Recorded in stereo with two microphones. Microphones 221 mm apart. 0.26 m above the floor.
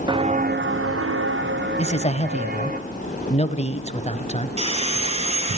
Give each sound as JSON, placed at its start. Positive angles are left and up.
{"t": 0.1, "sound": "footsteps", "side_deg": -20, "distance_m": 1.2}
{"t": 1.8, "sound": "a man speaking", "side_deg": 30, "distance_m": 1.1}
{"t": 4.6, "sound": "sawing", "side_deg": -30, "distance_m": 4.0}